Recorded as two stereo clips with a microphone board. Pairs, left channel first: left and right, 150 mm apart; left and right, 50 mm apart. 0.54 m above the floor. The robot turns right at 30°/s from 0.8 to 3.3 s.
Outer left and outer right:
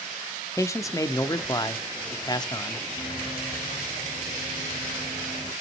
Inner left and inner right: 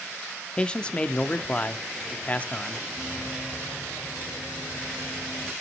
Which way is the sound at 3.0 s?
55° left (ahead or behind).